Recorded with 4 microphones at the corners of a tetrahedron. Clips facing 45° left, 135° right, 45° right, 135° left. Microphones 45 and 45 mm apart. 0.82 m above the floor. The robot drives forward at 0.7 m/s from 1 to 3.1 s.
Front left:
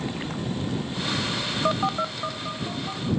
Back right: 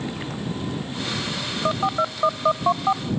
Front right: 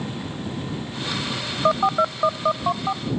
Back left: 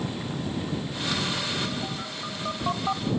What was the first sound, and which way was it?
A phone buzzing, 40° right.